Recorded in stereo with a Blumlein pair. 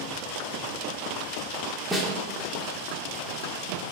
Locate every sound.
1.9 s a snare drum: 5° right, 0.5 m